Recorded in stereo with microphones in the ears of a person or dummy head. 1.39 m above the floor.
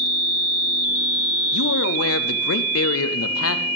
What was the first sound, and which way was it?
A man speaking, 65° left (ahead or behind).